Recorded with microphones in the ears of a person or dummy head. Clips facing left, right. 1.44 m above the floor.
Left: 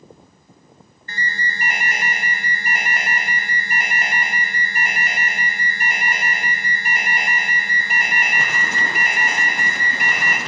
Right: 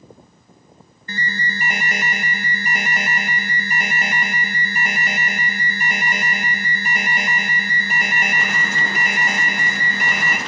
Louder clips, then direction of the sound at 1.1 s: Right 2 dB; 65° right (ahead or behind).